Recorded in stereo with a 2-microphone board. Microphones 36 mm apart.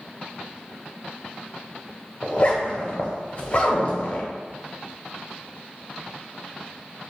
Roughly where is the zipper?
Left.